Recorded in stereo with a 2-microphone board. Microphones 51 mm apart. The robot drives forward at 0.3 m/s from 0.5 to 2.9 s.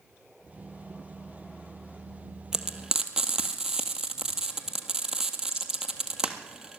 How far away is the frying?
About 1.5 m.